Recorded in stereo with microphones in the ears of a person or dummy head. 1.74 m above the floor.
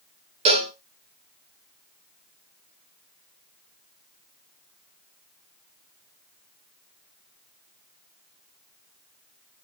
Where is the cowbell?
30° right (ahead or behind), 1.7 m.